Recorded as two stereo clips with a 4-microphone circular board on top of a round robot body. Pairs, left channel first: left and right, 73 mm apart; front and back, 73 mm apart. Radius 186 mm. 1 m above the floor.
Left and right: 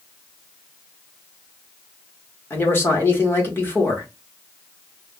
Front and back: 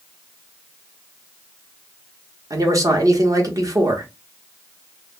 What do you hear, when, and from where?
2.5 s a man speaking: 145° left, 1.1 m